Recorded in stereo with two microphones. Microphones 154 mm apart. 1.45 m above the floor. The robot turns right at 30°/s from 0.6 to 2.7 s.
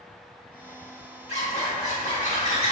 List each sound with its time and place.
1.3 s a zipper: 75° left, 1.1 m; by 2.7 s 120° left, 1.1 m